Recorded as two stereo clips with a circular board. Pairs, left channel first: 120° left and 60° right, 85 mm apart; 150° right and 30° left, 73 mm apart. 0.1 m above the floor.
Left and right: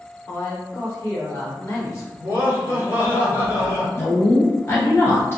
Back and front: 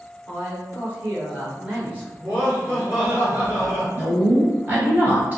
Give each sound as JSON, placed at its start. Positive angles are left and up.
{"t": 0.3, "sound": "a man speaking", "azimuth_deg": 80, "distance_m": 1.6}
{"t": 2.2, "sound": "laughter", "azimuth_deg": -20, "distance_m": 1.6}
{"t": 4.0, "sound": "a woman speaking", "azimuth_deg": 75, "distance_m": 1.6}